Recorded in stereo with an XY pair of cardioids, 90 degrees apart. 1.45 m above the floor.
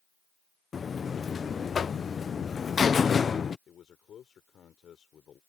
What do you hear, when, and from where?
0.7 s a buzzer: 45° left
3.7 s a man speaking: 65° left